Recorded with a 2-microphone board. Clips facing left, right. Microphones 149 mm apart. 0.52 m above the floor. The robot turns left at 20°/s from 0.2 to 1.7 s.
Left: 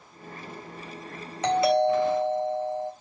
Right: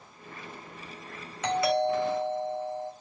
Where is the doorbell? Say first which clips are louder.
Left 4 dB; 30° left (ahead or behind), 2.5 m; by 2.9 s 25° left (ahead or behind), 2.5 m.